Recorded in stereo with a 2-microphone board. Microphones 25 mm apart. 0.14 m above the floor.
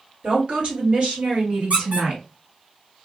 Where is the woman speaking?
45° right (ahead or behind), 2 m; by 2.2 s 60° right (ahead or behind), 2.5 m.